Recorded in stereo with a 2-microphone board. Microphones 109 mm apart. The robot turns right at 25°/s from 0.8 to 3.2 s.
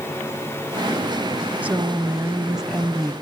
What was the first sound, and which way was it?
A woman speaking, 15° right (ahead or behind).